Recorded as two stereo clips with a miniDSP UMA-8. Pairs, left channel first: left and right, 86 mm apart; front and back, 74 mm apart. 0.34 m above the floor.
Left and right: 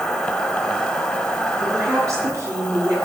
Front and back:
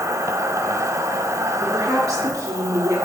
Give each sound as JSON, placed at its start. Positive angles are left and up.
{"t": 0.0, "sound": "an insect", "azimuth_deg": 170, "distance_m": 1.5}
{"t": 1.6, "sound": "a woman speaking", "azimuth_deg": -140, "distance_m": 4.0}